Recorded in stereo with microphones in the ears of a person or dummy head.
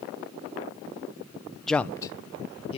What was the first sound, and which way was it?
A man speaking, centre (ahead or behind).